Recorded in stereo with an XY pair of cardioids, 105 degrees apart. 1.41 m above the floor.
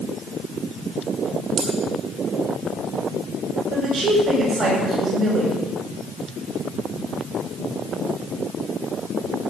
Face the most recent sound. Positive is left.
turn(degrees=-60)